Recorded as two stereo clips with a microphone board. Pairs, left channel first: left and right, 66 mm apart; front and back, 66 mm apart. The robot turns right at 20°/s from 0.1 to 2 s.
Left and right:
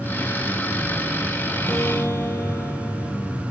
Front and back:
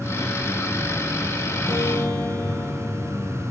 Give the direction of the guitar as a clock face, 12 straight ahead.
11 o'clock.